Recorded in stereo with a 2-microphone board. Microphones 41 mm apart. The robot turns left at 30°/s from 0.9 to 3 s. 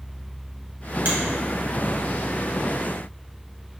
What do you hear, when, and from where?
1.1 s a finger snap: 50° right (ahead or behind), 1.4 m; by 1.2 s 45° right (ahead or behind), 1.4 m